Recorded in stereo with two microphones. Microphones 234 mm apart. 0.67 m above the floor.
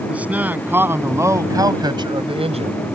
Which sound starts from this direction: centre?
A man speaking, at 0.1 s.